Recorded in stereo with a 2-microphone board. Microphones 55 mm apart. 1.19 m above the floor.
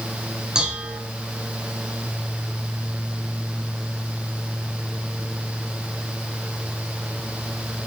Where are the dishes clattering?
15° right (ahead or behind), 7 m.